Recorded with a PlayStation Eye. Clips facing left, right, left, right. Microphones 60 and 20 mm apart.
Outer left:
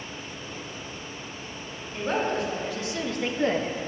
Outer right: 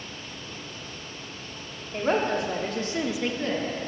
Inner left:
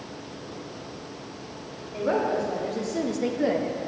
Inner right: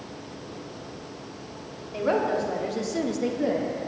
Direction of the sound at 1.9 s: 70° right (ahead or behind).